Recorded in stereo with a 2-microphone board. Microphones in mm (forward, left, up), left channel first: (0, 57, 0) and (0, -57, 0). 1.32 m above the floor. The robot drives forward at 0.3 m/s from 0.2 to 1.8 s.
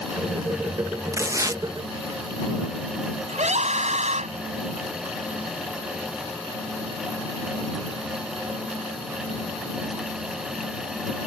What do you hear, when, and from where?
1.1 s tearing paper: 25° right (ahead or behind); by 1.6 s 30° right (ahead or behind)
3.3 s a scream: 85° right